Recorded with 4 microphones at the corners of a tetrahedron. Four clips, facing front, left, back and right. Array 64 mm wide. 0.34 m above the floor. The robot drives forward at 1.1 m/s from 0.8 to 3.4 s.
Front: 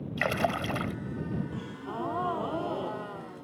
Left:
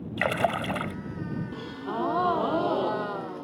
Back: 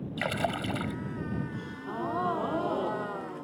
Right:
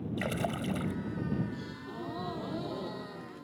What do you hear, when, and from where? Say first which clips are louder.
0.2 s a splash: left 10 dB, front 2 dB; 75° left; by 0.9 s 85° left
1.5 s a gasp: left 9 dB, even; 75° left; by 3.5 s 105° left